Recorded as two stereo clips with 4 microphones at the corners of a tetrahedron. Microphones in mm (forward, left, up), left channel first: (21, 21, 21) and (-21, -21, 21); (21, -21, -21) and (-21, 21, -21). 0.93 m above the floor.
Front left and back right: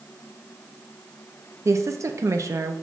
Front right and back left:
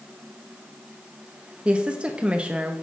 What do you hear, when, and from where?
1.6 s a woman speaking: 155° right, 0.6 m